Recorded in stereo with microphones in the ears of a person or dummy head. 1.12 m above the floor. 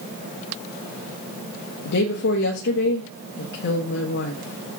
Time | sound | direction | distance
1.9 | a woman speaking | 65° left (ahead or behind) | 1.2 m